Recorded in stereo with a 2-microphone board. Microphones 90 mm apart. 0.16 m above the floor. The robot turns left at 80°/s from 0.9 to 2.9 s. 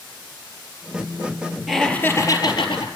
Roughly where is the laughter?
Behind.